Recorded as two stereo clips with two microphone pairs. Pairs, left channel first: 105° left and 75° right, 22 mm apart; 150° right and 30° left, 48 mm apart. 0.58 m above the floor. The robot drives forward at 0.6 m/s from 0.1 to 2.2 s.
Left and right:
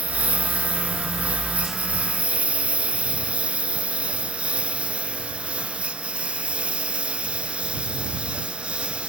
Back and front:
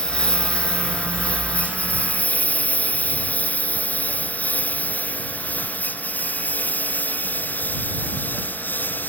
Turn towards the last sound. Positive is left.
turn(degrees=-105)